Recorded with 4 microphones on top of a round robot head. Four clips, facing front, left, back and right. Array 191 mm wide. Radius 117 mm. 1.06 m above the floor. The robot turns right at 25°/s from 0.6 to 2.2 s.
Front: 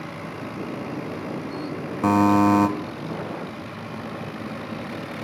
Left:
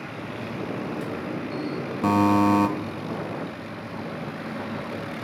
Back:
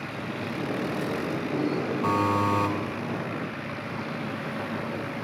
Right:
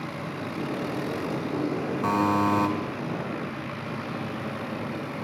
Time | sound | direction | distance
2.0 | a buzzer | 25° left | 0.5 m